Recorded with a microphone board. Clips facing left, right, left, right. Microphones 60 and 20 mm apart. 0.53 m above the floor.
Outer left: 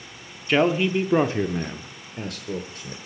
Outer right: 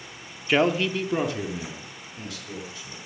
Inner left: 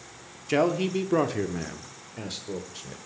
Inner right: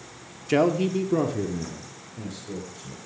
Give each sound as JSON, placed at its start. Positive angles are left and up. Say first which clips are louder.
{"t": 0.5, "sound": "a man speaking", "louder": "outer left 2 dB, inner right 2 dB", "side_deg": -5, "distance_m": 0.7}